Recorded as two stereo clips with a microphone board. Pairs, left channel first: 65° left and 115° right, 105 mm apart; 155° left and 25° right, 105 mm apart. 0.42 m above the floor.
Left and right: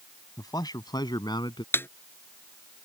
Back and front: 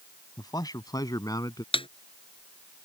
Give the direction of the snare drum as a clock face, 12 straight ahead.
8 o'clock.